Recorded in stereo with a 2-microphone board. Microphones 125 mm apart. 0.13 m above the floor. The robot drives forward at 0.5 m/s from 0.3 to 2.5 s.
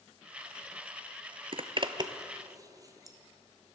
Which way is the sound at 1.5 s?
55° right (ahead or behind).